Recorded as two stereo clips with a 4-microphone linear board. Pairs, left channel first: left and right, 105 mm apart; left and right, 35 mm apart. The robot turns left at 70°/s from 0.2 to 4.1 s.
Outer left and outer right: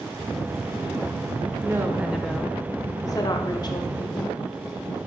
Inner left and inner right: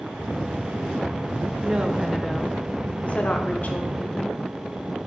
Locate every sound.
1.6 s a woman speaking: 135° right, 0.6 m; by 4.5 s 50° left, 0.6 m